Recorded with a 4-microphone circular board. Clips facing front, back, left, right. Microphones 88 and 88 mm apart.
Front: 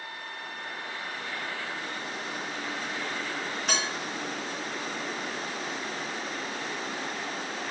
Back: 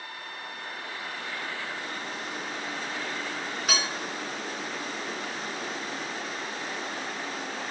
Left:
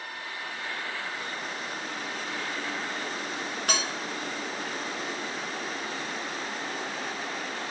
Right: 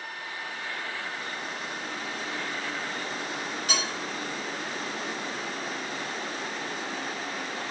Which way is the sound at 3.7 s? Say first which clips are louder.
Back 1 dB, left 2 dB; 90° left.